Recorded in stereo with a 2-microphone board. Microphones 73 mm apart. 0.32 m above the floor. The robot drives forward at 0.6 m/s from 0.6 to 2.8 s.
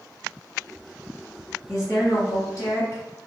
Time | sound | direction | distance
1.7 | a woman speaking | 50° left (ahead or behind) | 1.8 m